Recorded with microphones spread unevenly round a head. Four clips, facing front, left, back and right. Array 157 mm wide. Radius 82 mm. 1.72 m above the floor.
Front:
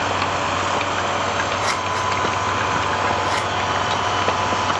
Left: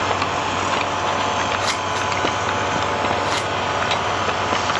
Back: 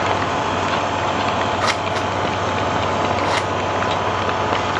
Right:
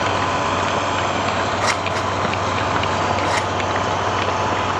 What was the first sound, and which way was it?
Scissors, 165° right.